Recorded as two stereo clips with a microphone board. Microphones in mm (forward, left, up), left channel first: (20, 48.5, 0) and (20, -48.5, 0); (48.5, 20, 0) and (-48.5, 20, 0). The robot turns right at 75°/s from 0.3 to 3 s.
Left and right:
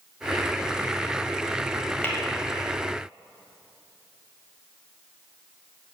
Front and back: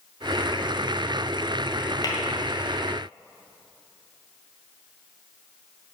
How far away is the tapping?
About 1.6 m.